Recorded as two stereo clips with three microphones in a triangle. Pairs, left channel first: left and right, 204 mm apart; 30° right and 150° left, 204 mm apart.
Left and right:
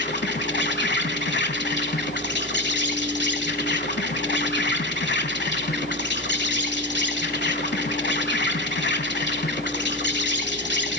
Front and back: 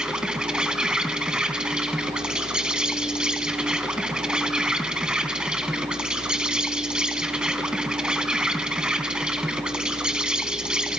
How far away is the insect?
About 1.0 m.